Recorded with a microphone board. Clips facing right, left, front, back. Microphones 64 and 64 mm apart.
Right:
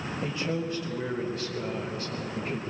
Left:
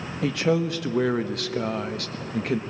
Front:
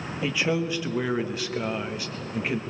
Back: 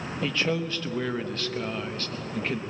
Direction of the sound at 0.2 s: 80° left.